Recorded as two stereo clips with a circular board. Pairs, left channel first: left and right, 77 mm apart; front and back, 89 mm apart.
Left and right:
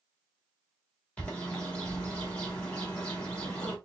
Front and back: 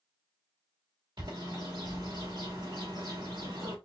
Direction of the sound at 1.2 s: 165° left.